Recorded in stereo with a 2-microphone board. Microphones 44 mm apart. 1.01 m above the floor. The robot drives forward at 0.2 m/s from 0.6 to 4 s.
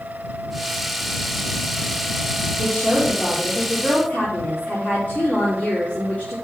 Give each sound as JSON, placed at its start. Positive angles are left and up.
{"t": 2.6, "sound": "a woman speaking", "side_deg": 45, "distance_m": 3.0}